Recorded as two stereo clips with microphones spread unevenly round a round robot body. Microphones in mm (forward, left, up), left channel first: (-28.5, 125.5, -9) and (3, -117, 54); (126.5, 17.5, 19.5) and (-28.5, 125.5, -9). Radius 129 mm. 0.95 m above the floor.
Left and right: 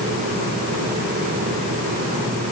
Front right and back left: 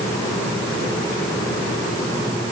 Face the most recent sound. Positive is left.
No sound to turn to.